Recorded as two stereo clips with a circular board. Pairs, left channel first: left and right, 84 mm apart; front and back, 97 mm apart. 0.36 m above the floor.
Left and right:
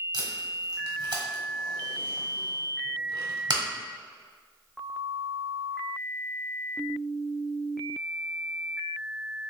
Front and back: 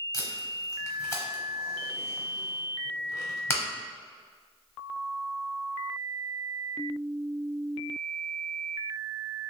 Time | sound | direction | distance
0.1 | tape being pulled | 60° right | 1.0 m